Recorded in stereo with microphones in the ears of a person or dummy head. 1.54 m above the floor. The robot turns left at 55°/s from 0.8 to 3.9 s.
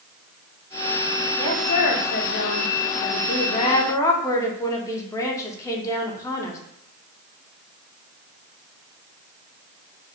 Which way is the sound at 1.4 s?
160° left.